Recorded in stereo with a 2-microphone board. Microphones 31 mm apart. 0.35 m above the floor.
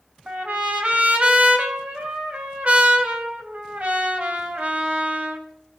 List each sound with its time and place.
0.3 s a trumpet: 50° right (ahead or behind), 2.5 m